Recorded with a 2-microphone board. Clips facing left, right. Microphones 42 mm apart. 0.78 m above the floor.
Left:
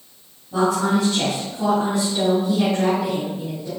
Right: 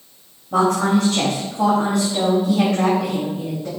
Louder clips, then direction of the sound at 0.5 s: Right 2 dB; 55° right (ahead or behind).